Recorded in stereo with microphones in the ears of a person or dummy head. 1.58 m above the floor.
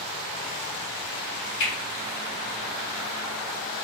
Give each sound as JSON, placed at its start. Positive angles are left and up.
{"t": 1.6, "sound": "a finger snap", "side_deg": 60, "distance_m": 1.6}